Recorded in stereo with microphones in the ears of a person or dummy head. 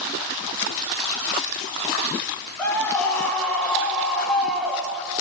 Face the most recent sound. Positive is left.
turn(degrees=-10)  # may be behind; listen again after turning